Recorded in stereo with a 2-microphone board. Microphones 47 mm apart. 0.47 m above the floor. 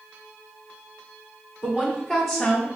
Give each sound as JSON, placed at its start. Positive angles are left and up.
{"t": 1.6, "sound": "a woman speaking", "side_deg": -30, "distance_m": 1.3}